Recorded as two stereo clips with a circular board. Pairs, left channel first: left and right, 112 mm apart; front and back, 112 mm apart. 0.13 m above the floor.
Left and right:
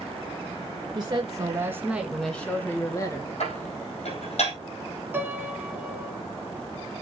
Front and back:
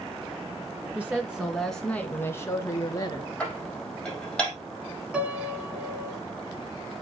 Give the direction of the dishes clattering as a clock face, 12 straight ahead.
9 o'clock.